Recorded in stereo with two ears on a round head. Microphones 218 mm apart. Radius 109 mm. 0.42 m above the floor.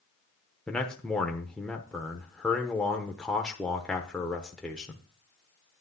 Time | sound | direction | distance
0.7 | a man speaking | 5° left (ahead or behind) | 0.8 m